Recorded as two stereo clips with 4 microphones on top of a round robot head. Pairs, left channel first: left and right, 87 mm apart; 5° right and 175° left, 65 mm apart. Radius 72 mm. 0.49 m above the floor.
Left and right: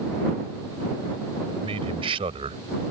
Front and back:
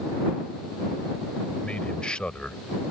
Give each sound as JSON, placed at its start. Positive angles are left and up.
{"t": 1.6, "sound": "a man speaking", "azimuth_deg": -85}